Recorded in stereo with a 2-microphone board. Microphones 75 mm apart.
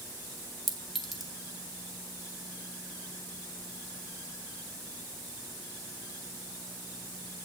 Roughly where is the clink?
Centre.